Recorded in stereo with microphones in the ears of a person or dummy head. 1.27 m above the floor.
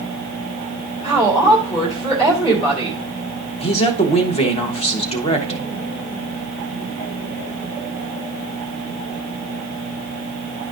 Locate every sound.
1.0 s a woman speaking: 30° left (ahead or behind), 2.5 m
3.6 s a man speaking: 30° left (ahead or behind), 1.1 m